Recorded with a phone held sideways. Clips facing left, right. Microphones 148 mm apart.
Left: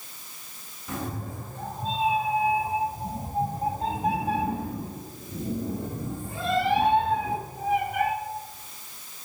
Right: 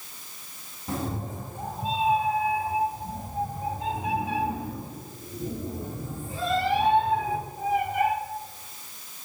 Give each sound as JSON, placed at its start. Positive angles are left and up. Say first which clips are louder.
{"t": 0.9, "sound": "a cat meowing", "louder": "right 2 dB", "side_deg": -35, "distance_m": 1.1}